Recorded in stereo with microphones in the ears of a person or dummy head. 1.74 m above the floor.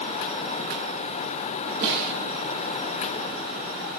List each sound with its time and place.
1.8 s a snare drum: 55° right (ahead or behind), 8 m